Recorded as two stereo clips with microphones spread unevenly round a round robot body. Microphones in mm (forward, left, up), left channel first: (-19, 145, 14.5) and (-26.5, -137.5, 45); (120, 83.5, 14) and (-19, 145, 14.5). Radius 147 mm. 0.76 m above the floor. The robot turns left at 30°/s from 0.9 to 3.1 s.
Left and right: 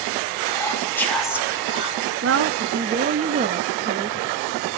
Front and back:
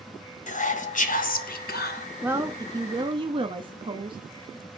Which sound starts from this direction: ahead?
Whispering, at 0.5 s.